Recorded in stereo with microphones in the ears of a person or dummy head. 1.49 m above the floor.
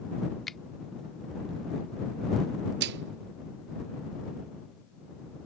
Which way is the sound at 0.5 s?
Centre (ahead or behind).